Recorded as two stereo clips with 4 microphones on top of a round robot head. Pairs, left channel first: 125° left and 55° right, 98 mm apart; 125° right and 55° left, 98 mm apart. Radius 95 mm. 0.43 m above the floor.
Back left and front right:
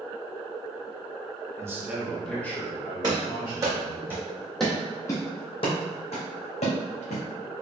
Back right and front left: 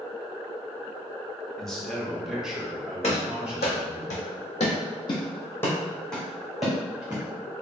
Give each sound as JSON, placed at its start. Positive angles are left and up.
{"t": 1.6, "sound": "a man speaking", "azimuth_deg": -50, "distance_m": 1.2}
{"t": 3.0, "sound": "running footsteps", "azimuth_deg": -105, "distance_m": 1.6}